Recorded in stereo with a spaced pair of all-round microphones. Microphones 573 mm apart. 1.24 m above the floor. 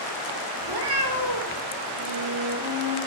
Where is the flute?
50° right (ahead or behind), 1.8 m.